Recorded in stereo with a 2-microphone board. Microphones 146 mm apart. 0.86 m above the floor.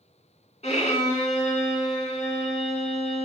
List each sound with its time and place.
0.6 s a violin: 45° left (ahead or behind), 1.7 m